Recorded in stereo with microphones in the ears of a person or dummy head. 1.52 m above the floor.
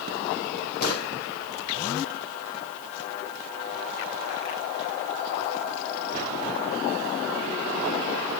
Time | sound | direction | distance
0.8 | a gunshot | 55° left (ahead or behind) | 3 m